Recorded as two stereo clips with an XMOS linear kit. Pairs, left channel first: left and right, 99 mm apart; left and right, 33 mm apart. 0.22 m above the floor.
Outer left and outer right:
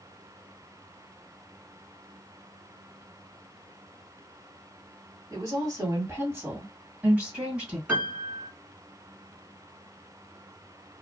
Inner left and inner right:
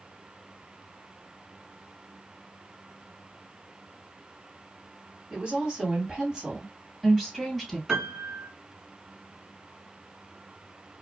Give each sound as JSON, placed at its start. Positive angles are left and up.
{"t": 5.3, "sound": "a woman speaking", "side_deg": -35, "distance_m": 1.6}
{"t": 7.9, "sound": "a piano", "side_deg": -15, "distance_m": 1.5}